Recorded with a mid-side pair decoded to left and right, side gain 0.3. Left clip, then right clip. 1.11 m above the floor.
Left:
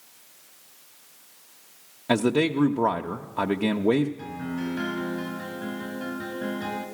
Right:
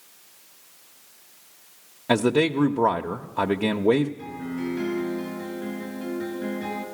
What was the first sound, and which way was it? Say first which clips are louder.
A man speaking: right 2 dB; 15° right.